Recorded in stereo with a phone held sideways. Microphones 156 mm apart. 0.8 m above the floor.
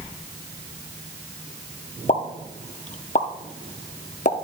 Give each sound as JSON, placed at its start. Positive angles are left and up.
{"t": 2.1, "sound": "a pop", "side_deg": 50, "distance_m": 0.7}